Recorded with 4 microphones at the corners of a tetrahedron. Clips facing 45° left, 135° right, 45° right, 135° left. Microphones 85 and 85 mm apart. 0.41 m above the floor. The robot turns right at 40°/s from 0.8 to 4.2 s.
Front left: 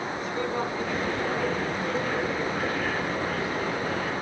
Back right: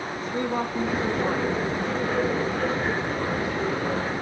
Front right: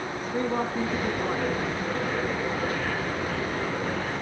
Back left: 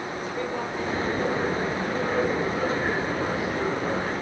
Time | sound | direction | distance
0.2 | a man speaking | 85° right | 5.5 m